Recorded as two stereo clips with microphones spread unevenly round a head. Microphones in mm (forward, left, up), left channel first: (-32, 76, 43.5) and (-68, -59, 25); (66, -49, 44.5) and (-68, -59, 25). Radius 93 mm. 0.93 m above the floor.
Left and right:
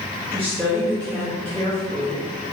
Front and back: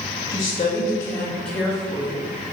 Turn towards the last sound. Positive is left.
turn(degrees=-120)